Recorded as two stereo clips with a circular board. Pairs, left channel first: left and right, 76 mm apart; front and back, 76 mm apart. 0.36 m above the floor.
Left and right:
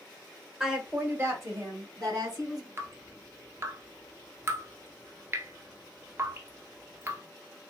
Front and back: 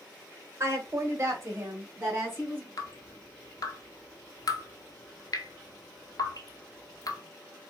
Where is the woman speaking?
170° right, 1.1 m; by 2.7 s 125° right, 3 m.